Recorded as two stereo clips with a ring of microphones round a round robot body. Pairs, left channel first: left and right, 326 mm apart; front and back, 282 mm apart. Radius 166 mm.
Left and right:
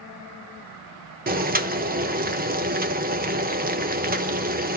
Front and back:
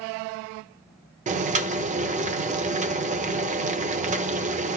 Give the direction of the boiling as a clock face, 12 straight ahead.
4 o'clock.